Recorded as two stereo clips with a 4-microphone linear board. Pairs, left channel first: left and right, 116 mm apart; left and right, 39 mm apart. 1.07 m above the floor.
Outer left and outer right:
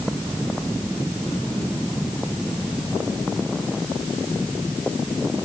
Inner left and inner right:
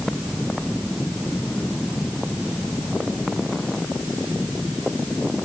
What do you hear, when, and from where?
Only background noise.